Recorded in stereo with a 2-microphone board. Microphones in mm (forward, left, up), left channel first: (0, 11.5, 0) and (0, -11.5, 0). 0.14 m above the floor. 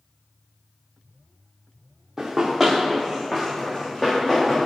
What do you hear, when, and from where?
2.2 s running footsteps: 15° right (ahead or behind), 1.2 m; by 4.7 s 25° left (ahead or behind), 2.5 m